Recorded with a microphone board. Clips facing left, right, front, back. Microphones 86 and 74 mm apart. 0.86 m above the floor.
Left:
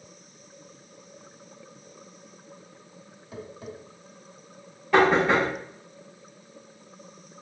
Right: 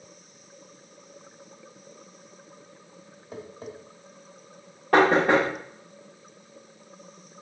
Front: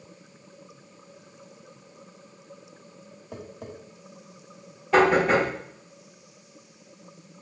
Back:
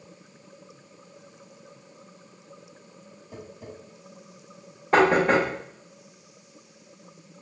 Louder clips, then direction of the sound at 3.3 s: Even, front 2 dB; 30° right.